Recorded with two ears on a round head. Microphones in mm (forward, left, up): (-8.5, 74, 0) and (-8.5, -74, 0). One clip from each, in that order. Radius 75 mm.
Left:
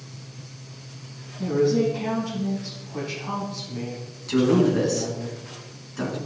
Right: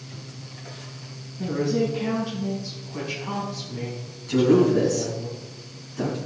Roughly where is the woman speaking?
Centre.